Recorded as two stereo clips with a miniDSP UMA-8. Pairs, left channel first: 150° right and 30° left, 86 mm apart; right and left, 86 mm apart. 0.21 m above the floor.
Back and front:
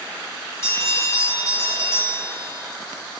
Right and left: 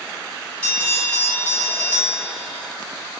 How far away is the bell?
About 1.9 m.